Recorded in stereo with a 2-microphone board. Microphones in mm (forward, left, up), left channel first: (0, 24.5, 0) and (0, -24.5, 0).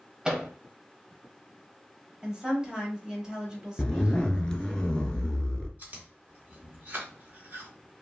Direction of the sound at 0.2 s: 15° right (ahead or behind).